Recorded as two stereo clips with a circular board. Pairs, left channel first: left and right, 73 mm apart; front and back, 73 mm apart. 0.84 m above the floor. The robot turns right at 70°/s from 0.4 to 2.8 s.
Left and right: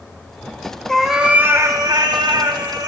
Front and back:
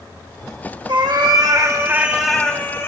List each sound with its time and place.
0.9 s a cat meowing: 170° left, 0.9 m; by 2.9 s 55° right, 0.9 m